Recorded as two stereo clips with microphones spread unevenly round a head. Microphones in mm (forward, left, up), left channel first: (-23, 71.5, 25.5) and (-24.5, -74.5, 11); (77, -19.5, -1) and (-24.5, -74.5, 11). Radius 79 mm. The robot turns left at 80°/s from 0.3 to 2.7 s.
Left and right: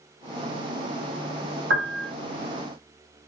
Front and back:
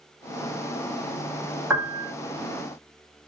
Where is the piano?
80° right, 1.7 m; by 2.1 s 110° right, 1.7 m.